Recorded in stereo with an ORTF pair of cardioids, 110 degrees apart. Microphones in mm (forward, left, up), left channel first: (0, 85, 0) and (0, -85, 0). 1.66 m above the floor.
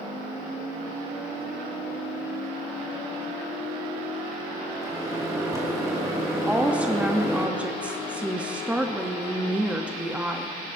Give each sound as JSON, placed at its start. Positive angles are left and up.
{"t": 4.8, "sound": "a microwave", "azimuth_deg": -20, "distance_m": 2.5}
{"t": 6.5, "sound": "a woman speaking", "azimuth_deg": -5, "distance_m": 0.8}